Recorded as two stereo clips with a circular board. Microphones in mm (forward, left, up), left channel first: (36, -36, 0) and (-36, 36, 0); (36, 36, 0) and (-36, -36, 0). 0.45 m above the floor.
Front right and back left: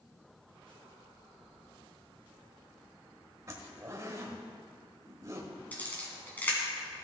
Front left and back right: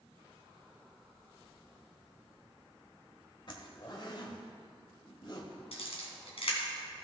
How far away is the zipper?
About 1.4 m.